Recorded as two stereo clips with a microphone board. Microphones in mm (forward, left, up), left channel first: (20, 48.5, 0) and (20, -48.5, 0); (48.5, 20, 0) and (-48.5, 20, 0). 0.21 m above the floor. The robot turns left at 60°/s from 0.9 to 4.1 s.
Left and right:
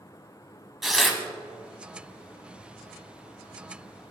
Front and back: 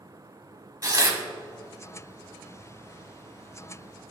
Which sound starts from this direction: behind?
Tearing paper, at 0.8 s.